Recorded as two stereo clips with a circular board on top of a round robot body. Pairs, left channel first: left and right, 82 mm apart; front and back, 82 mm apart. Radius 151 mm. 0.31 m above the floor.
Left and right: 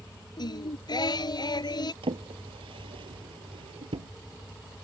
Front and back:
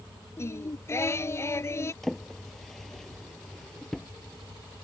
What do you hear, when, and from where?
0.4 s singing: 60° left
2.0 s a drawer: 85° right